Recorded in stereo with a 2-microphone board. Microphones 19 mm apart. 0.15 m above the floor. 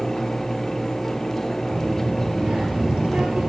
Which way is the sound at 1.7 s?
65° right (ahead or behind).